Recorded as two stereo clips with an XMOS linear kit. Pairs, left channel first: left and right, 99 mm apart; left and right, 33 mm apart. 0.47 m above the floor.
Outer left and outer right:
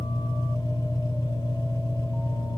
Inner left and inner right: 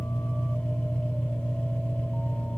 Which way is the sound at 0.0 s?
40° left (ahead or behind).